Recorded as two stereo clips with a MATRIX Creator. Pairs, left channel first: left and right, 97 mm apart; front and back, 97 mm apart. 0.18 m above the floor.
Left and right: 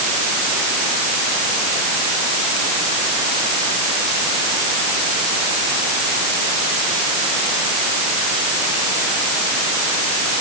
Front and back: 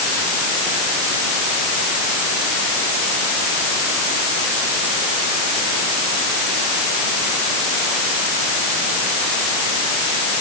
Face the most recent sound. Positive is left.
No sound to turn to.